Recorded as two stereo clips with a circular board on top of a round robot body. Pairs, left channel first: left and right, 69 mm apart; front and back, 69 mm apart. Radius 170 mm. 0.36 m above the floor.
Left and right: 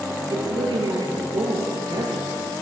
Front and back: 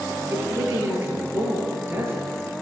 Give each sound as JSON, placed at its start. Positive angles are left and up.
{"t": 0.3, "sound": "a woman speaking", "azimuth_deg": -120, "distance_m": 9.0}